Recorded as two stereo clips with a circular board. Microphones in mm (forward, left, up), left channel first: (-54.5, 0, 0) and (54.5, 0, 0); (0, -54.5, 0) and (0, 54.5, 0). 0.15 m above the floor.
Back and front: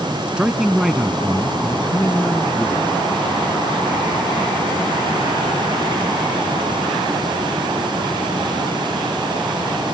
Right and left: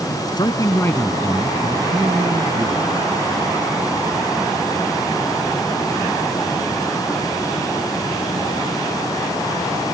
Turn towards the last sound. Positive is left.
turn(degrees=110)